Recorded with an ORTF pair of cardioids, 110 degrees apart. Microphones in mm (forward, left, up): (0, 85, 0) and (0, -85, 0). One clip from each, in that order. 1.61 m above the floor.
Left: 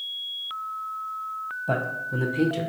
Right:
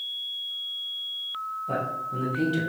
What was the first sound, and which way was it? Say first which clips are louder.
A man speaking: left 3 dB; 55° left.